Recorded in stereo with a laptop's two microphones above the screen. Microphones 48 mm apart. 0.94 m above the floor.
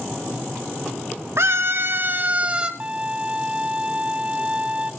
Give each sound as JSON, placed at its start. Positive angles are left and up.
{"t": 1.4, "sound": "a scream", "side_deg": -65, "distance_m": 2.0}
{"t": 2.8, "sound": "a violin", "side_deg": -25, "distance_m": 0.5}